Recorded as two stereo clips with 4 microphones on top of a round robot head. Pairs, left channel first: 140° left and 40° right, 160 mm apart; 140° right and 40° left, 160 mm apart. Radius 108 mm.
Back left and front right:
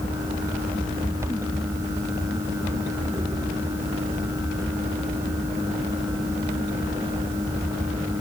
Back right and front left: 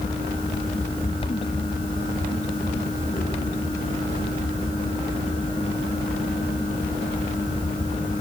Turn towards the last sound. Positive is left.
No sound to turn to.